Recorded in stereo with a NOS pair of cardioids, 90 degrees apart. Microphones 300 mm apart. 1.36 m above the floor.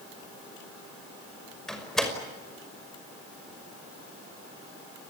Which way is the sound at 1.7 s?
Straight ahead.